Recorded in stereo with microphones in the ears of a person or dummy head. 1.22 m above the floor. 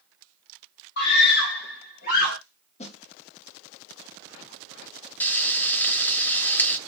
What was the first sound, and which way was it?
A scream, 65° left (ahead or behind).